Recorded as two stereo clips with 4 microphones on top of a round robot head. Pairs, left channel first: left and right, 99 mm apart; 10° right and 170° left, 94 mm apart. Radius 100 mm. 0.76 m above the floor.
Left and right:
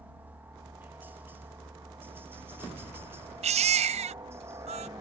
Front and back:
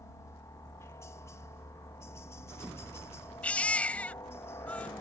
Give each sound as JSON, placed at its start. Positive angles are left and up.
{"t": 0.0, "sound": "a helicopter", "azimuth_deg": -30}
{"t": 3.4, "sound": "a baby crying", "azimuth_deg": -90}